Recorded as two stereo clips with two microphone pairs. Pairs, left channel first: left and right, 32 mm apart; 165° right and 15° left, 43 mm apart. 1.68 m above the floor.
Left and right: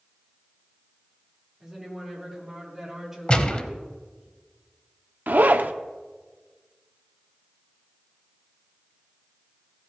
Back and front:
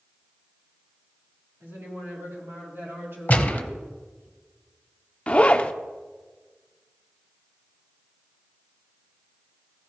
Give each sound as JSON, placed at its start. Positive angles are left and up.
{"t": 1.6, "sound": "a woman speaking", "azimuth_deg": -10, "distance_m": 4.0}
{"t": 3.3, "sound": "a gunshot", "azimuth_deg": 145, "distance_m": 0.8}
{"t": 5.3, "sound": "a zipper", "azimuth_deg": -110, "distance_m": 0.5}